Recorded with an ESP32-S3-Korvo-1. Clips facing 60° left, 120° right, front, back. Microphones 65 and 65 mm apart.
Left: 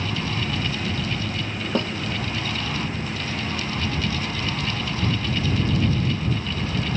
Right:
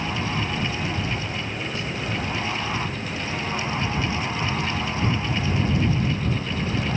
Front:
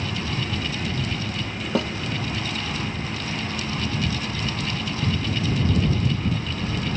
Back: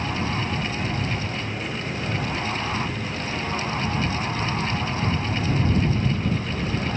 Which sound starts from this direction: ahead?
A snare drum, at 1.8 s.